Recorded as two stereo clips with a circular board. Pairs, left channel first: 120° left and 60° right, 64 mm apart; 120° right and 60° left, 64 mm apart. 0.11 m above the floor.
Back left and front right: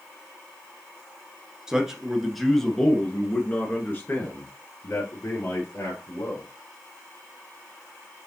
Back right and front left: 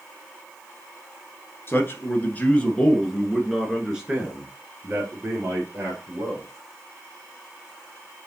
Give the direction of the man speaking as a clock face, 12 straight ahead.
4 o'clock.